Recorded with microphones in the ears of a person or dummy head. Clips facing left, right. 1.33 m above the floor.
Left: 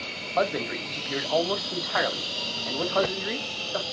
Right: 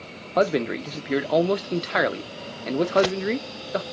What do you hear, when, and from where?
0.4 s a man speaking: 45° right (ahead or behind), 0.6 m